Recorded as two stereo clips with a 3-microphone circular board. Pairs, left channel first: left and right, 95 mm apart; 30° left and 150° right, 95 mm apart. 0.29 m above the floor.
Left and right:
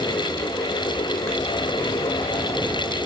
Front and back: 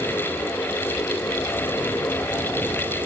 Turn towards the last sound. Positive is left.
No sound to turn to.